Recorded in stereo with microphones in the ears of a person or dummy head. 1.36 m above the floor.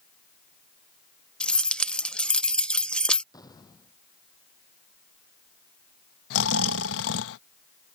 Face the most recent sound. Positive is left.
turn(degrees=80)